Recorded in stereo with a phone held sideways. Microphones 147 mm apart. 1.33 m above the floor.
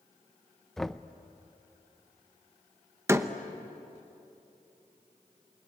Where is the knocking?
Centre (ahead or behind), 0.6 m.